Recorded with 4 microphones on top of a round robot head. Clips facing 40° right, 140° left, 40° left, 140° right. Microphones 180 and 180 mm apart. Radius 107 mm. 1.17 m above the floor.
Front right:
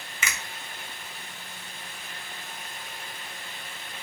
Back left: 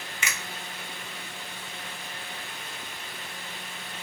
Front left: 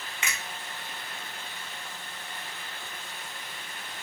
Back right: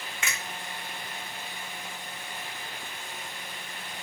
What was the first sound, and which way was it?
A finger snap, 30° right.